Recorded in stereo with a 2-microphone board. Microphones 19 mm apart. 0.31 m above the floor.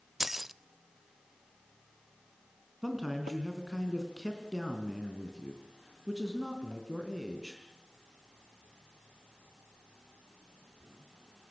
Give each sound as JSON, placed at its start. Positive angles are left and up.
{"t": 0.2, "sound": "keys jangling", "side_deg": -15, "distance_m": 0.5}
{"t": 2.8, "sound": "a man speaking", "side_deg": -10, "distance_m": 3.5}